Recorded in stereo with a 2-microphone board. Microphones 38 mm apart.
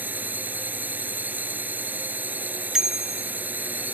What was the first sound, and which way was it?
A drone, 50° right (ahead or behind).